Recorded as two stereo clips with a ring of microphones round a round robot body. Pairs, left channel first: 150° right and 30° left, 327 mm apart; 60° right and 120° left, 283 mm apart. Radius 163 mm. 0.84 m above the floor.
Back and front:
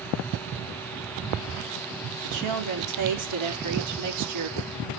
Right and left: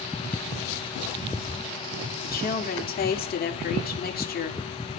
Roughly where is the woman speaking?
Ahead.